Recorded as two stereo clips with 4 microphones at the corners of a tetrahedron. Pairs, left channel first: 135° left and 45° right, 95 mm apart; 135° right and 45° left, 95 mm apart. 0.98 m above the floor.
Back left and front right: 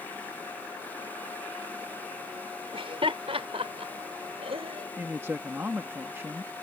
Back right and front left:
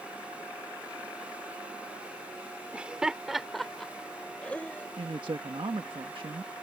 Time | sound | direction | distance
2.7 | laughter | 30° right | ?
5.0 | a man speaking | 20° left | ?